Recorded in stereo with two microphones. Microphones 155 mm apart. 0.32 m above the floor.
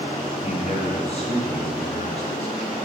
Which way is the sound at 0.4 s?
45° left (ahead or behind).